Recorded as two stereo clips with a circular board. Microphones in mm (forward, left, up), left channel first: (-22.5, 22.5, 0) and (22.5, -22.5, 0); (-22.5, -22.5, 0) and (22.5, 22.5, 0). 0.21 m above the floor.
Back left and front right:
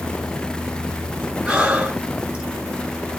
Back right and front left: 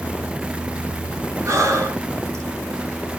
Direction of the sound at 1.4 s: 30° left.